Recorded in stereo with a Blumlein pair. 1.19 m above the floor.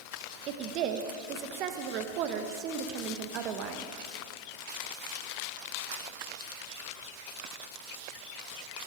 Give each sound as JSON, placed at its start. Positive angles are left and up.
{"t": 0.5, "sound": "a woman speaking", "azimuth_deg": -40, "distance_m": 1.2}